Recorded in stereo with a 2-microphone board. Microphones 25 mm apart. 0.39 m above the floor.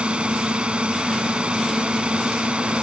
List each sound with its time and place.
0.0 s a drone: 45° right (ahead or behind)